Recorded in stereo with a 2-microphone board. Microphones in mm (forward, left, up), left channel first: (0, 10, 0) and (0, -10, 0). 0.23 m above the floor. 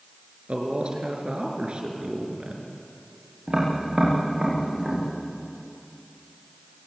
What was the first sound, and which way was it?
A man speaking, 55° right (ahead or behind).